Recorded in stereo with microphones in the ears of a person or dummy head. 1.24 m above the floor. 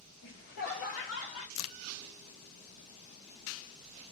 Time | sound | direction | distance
0.2 | laughter | 55° left (ahead or behind) | 1.8 m
1.6 | a crack | 80° left | 0.6 m